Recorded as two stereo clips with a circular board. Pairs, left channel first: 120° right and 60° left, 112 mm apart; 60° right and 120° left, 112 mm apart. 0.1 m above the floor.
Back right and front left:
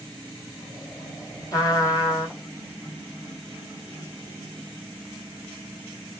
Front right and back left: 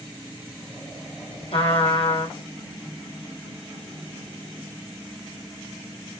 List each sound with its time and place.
1.5 s a trumpet: 65° right, 2.5 m